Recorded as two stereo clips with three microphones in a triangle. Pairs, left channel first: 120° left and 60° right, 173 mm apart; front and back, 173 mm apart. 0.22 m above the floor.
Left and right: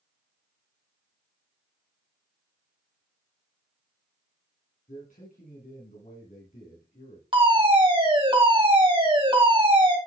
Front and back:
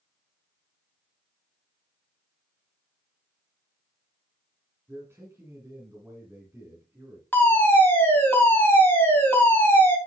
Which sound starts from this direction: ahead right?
A fire alarm, at 7.3 s.